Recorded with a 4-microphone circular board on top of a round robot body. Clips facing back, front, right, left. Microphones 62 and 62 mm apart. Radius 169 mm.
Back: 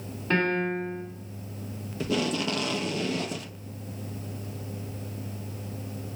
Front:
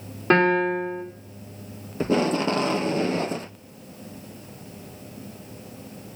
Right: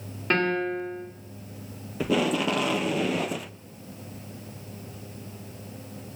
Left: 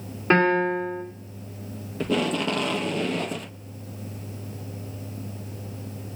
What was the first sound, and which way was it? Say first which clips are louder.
A piano: front 7 dB, left 5 dB; 20° left.